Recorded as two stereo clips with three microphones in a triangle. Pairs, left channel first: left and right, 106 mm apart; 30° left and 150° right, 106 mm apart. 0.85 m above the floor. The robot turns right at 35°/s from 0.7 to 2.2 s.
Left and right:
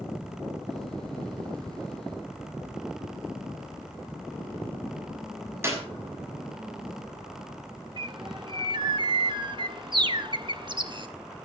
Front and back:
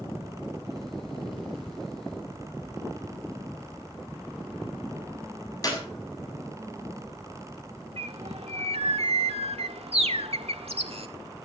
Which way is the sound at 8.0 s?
130° right.